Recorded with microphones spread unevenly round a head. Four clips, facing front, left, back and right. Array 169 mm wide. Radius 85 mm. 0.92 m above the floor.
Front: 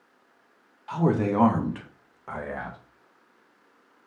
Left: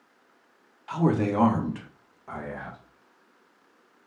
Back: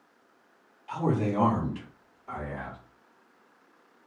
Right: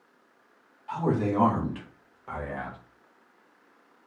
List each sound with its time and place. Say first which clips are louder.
0.9 s a man speaking: left 2 dB, front 4 dB; 60° left, 1.1 m; by 2.8 s 25° right, 1.4 m